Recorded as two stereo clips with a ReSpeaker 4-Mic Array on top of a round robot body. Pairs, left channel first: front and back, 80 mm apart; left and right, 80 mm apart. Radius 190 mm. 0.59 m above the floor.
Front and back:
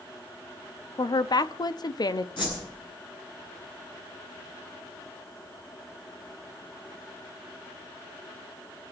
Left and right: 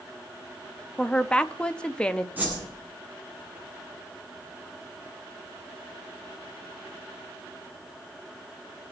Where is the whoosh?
20° right, 9 m.